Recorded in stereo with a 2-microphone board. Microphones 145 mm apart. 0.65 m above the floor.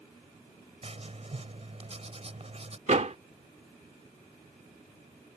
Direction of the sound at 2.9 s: 55° right (ahead or behind).